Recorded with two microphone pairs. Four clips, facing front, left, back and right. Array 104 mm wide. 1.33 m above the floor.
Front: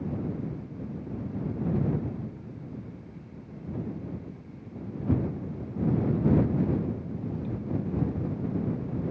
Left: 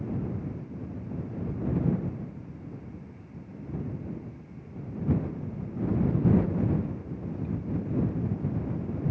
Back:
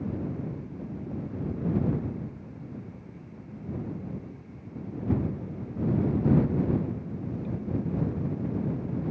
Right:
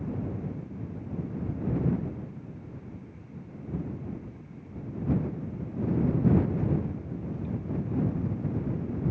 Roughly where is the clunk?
I don't hear a clunk.